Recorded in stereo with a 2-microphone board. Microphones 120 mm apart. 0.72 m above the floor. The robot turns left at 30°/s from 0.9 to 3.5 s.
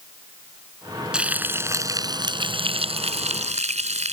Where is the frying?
10° right; by 4.1 s 80° right.